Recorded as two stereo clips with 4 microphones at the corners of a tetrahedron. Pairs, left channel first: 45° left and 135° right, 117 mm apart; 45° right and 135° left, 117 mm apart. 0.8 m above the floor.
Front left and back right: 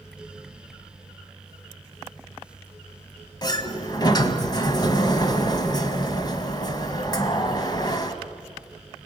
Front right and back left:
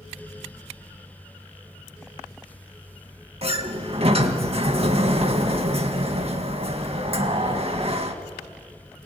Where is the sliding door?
100° left, 1.8 m.